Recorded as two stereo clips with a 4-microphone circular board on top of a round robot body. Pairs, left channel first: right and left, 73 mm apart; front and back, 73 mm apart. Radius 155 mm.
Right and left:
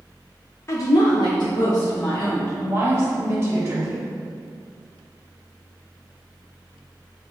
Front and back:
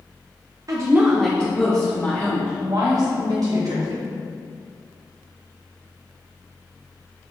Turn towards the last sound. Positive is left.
turn(degrees=145)